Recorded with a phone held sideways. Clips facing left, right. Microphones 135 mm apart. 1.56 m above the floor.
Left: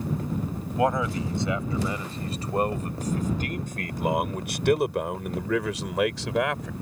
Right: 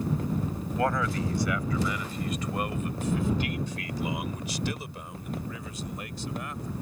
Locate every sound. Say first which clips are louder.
0.8 s a man speaking: left 3 dB; 20° left (ahead or behind); by 6.7 s 85° left